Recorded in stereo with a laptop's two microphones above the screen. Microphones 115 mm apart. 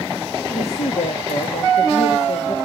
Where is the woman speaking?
70° left (ahead or behind), 1.5 m.